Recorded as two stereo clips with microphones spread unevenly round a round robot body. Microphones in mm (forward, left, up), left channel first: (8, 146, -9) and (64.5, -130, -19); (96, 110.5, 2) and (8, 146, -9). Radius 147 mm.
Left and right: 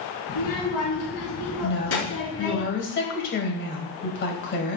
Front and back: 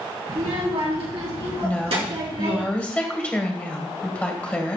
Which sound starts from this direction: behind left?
A child speaking, at 0.3 s.